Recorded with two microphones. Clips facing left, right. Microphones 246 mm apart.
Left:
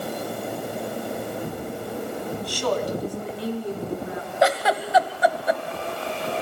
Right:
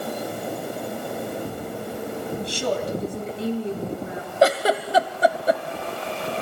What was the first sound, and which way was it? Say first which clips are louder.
A woman speaking: left 1 dB; 25° right (ahead or behind).